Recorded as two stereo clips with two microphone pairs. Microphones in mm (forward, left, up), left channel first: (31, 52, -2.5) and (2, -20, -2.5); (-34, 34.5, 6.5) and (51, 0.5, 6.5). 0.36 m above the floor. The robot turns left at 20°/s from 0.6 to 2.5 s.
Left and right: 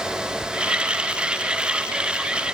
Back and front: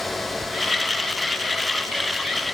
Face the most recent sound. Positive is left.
No sound to turn to.